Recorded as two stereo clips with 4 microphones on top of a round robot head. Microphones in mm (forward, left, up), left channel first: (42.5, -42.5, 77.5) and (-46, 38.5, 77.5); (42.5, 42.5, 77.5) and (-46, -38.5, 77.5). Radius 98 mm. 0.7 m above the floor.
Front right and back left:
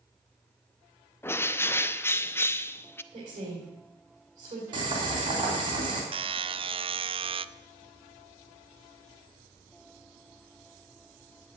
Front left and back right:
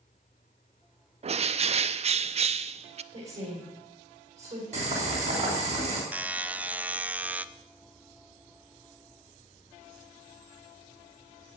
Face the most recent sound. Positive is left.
turn(degrees=150)